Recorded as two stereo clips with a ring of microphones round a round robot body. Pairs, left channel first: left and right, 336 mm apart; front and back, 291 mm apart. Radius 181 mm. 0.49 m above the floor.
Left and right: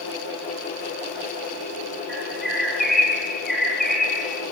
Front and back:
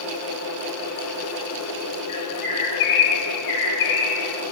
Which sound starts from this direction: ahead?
A bird, at 2.1 s.